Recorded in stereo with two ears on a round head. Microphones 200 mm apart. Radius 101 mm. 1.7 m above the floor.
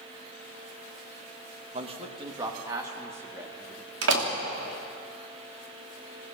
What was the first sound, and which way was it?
A man speaking, 30° right (ahead or behind).